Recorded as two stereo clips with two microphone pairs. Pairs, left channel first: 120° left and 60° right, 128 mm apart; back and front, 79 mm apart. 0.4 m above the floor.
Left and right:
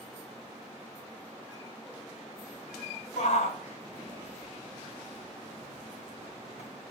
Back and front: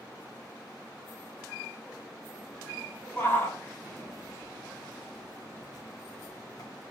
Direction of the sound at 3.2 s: 115° left.